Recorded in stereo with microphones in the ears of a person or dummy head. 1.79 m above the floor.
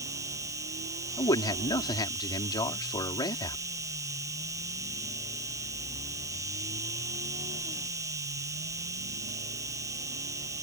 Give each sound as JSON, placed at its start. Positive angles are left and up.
{"t": 0.0, "sound": "an insect", "side_deg": -15}
{"t": 1.2, "sound": "a man speaking", "side_deg": 25}